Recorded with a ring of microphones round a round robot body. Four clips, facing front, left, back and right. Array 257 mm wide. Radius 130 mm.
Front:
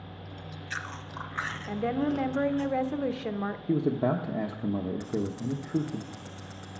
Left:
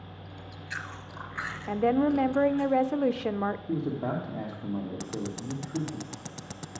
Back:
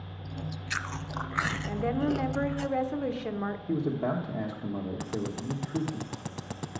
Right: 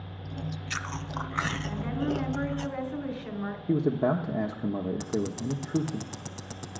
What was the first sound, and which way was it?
Chewing, 130° right.